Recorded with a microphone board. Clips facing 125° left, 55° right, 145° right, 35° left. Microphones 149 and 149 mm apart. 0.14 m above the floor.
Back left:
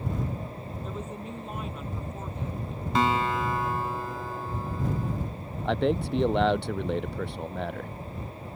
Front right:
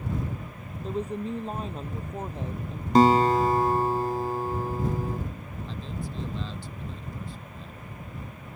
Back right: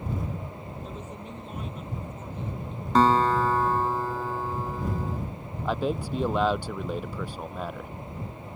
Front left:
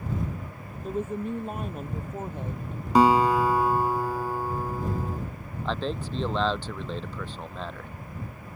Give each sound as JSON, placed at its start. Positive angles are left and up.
{"t": 0.8, "sound": "a woman speaking", "azimuth_deg": 0}
{"t": 3.0, "sound": "a guitar", "azimuth_deg": -40}
{"t": 5.7, "sound": "a man speaking", "azimuth_deg": 135}